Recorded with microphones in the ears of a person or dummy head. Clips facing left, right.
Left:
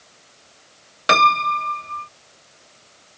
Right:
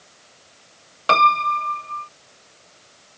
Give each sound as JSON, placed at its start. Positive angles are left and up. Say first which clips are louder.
{"t": 1.1, "sound": "a piano", "louder": "even", "side_deg": 15}